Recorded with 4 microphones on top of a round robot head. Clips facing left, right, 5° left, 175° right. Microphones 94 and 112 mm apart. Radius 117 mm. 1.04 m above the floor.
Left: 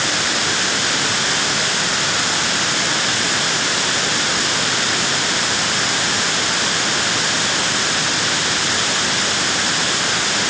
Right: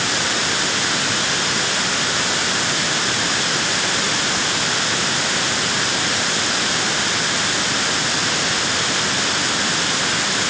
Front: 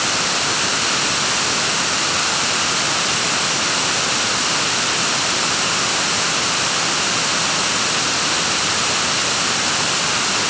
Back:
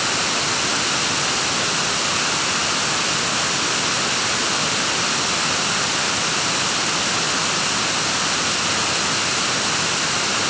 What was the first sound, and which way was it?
Only background noise.